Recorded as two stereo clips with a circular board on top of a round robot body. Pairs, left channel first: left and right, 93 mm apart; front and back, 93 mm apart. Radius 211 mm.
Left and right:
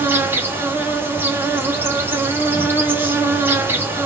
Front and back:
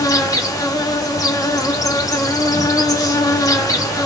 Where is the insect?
30° right, 1.8 m.